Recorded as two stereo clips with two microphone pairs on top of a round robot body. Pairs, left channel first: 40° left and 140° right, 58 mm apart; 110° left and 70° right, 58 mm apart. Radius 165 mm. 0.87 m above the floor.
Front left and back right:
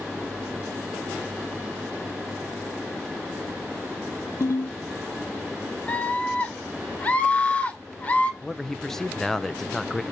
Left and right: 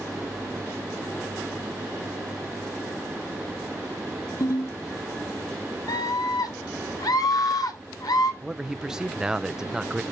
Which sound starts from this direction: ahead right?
A man speaking, at 8.4 s.